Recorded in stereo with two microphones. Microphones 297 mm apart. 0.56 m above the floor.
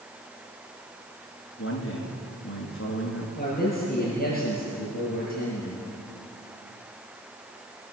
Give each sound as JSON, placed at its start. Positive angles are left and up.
{"t": 1.6, "sound": "a man speaking", "side_deg": 45, "distance_m": 6.5}
{"t": 3.4, "sound": "a man speaking", "side_deg": 30, "distance_m": 9.0}